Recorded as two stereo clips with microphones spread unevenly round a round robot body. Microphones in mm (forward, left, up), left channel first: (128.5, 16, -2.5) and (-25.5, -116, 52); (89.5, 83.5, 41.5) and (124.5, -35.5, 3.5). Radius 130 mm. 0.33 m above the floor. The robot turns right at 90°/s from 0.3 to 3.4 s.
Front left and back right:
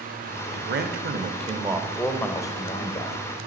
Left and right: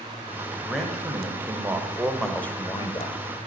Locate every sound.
0.5 s a man speaking: 165° right, 0.9 m; by 3.2 s 75° left, 0.9 m